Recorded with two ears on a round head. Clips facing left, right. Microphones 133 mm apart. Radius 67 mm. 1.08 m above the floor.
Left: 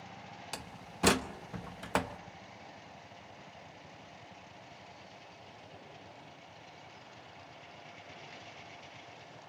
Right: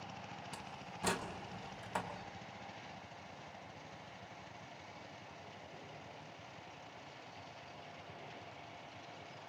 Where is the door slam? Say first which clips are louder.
Left 2 dB; 80° left, 1.0 m.